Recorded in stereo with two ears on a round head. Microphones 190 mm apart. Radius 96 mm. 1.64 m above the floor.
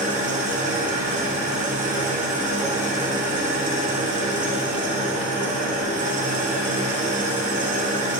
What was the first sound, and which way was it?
An engine running, 40° right (ahead or behind).